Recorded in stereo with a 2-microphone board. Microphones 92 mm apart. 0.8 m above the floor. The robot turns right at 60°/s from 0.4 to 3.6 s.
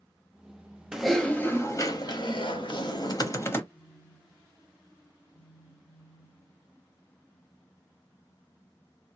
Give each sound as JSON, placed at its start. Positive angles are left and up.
{"t": 0.9, "sound": "typing on a keyboard", "azimuth_deg": -5, "distance_m": 0.9}
{"t": 3.7, "sound": "a phone buzzing", "side_deg": 55, "distance_m": 1.3}